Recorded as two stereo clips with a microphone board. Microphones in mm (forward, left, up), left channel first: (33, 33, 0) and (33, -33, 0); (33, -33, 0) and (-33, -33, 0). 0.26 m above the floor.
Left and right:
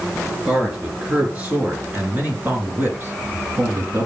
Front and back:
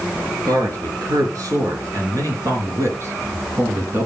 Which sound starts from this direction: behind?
A man speaking, at 0.5 s.